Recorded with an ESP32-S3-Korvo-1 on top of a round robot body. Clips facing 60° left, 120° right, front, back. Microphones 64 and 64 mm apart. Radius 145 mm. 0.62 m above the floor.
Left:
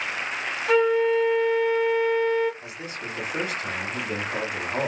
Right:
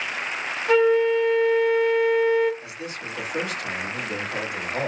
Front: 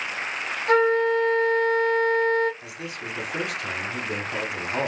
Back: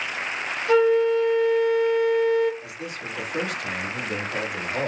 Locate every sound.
0.7 s a flute: 30° right, 1.0 m
2.6 s a man speaking: 5° right, 2.5 m